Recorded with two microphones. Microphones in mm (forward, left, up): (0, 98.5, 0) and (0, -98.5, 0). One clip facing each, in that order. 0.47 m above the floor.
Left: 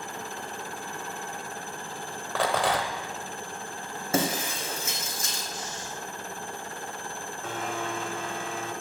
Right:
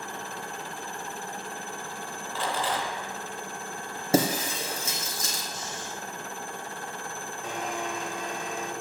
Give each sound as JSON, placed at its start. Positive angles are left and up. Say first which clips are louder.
{"t": 2.4, "sound": "a rattle", "louder": "left 4 dB", "side_deg": 75, "distance_m": 1.1}
{"t": 4.1, "sound": "breaking glass", "louder": "right 3 dB", "side_deg": -30, "distance_m": 3.0}
{"t": 5.5, "sound": "snoring", "louder": "even", "side_deg": -60, "distance_m": 5.0}
{"t": 7.4, "sound": "a blender", "louder": "even", "side_deg": -15, "distance_m": 1.2}